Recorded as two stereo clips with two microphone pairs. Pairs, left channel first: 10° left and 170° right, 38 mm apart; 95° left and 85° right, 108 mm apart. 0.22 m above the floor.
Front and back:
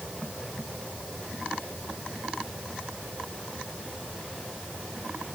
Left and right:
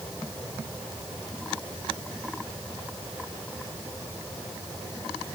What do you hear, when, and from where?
Only background noise.